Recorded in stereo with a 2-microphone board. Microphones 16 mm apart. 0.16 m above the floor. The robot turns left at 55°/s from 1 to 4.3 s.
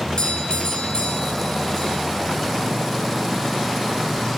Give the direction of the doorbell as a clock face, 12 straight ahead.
9 o'clock.